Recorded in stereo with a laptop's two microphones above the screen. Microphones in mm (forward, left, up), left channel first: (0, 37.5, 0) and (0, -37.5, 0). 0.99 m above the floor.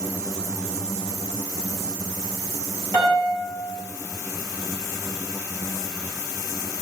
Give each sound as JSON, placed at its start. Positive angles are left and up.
{"t": 2.9, "sound": "a piano", "side_deg": 45, "distance_m": 1.1}